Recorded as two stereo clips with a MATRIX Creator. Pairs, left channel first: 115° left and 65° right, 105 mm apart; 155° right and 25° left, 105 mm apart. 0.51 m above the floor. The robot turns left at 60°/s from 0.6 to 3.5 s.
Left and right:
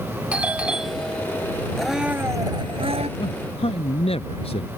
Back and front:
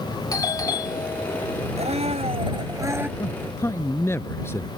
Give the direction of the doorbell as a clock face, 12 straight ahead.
5 o'clock.